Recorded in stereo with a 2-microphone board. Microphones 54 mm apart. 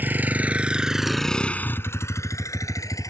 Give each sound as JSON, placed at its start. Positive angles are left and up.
{"t": 0.0, "sound": "a vehicle", "side_deg": -35}